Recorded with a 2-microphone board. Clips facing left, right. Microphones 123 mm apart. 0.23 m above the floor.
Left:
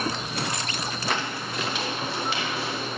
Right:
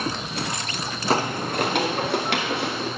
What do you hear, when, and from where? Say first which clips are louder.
1.1 s footsteps: right 10 dB; 35° right (ahead or behind), 0.8 m; by 2.9 s 65° right (ahead or behind), 3 m